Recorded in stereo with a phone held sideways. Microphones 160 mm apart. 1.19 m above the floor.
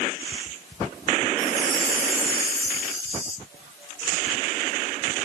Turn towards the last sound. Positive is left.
turn(degrees=-25)  # may be behind; listen again after turning